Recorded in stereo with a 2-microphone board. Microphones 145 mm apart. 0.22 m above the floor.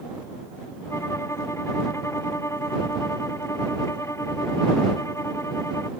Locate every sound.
0.9 s a violin: 20° left (ahead or behind)